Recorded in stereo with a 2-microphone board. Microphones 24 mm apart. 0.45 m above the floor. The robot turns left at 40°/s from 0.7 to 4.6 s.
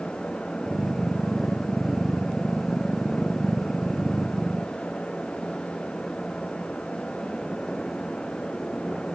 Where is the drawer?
I don't hear a drawer.